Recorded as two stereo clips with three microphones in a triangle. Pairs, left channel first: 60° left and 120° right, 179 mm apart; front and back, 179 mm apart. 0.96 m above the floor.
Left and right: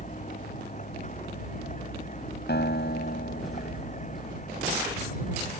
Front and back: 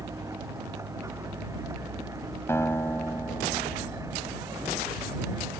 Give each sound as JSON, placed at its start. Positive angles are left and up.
{"t": 0.0, "sound": "a vehicle", "azimuth_deg": 105}
{"t": 2.5, "sound": "a guitar", "azimuth_deg": 75}